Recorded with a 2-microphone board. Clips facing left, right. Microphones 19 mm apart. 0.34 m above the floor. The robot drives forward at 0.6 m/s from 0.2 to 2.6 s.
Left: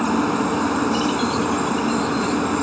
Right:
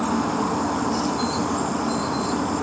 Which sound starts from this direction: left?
A helicopter, at 0.0 s.